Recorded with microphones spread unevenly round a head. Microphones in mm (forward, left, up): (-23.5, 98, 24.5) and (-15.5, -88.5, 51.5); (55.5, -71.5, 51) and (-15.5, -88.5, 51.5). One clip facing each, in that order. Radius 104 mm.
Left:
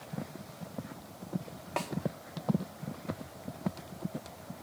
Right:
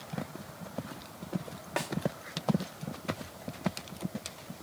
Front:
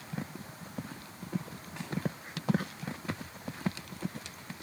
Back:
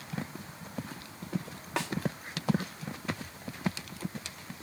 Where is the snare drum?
165° right, 2 m.